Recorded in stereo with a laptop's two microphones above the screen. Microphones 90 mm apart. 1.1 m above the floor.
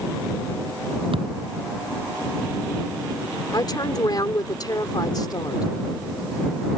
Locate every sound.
1.1 s a thud: 85° right
3.5 s a woman speaking: 50° left (ahead or behind)